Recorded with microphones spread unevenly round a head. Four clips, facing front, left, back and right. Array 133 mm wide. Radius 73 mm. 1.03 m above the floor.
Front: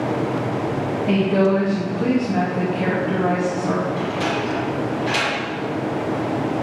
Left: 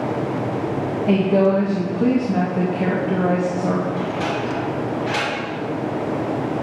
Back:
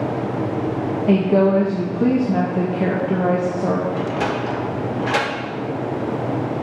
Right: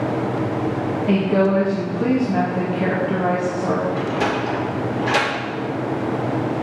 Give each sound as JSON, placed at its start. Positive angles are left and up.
{"t": 1.1, "sound": "a woman speaking", "azimuth_deg": 150, "distance_m": 1.1}
{"t": 4.0, "sound": "a sliding door", "azimuth_deg": -155, "distance_m": 1.9}